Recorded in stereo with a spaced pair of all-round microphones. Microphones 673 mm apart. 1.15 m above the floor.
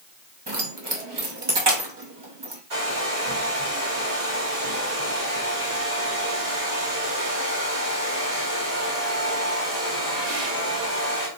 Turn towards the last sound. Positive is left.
turn(degrees=-75)  # may be behind; listen again after turning